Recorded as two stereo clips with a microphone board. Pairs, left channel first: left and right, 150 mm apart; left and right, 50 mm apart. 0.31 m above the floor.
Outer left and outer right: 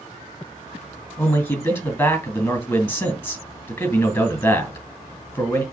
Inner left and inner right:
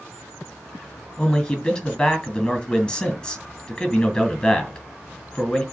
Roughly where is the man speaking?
Centre.